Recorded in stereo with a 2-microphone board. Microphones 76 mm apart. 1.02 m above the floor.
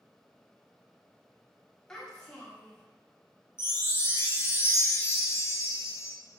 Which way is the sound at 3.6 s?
35° left (ahead or behind).